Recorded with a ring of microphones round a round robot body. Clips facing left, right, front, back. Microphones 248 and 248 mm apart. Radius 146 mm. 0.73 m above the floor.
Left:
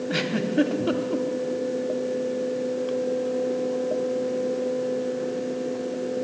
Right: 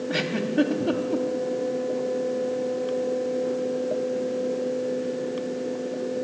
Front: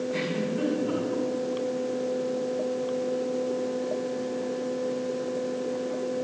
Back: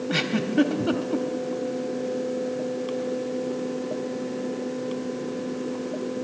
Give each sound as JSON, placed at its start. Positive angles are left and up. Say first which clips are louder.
{"t": 0.1, "sound": "a giggle", "louder": "left 1 dB, back 3 dB", "azimuth_deg": 175, "distance_m": 1.1}